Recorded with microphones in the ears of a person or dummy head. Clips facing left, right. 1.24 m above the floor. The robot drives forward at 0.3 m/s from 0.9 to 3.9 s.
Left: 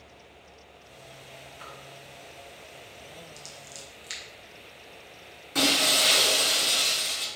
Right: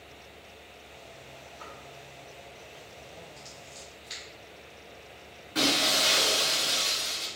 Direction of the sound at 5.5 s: 45° left (ahead or behind).